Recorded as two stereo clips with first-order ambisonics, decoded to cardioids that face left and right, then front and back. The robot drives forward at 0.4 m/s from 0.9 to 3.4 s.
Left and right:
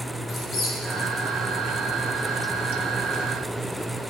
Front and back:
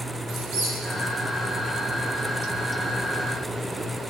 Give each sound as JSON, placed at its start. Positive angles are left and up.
{"t": 0.3, "sound": "a squeak", "azimuth_deg": 145, "distance_m": 3.0}